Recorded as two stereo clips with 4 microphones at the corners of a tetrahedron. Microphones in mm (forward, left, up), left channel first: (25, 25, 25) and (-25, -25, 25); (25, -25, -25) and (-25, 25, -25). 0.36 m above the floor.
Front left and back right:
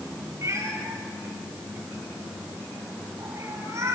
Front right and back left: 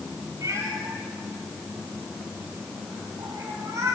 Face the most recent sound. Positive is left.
turn(degrees=175)